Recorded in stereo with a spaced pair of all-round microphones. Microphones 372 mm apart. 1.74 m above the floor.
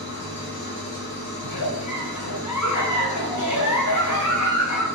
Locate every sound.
0.0 s an engine running: 30° left (ahead or behind), 1.2 m
1.4 s a giggle: 50° left (ahead or behind), 0.8 m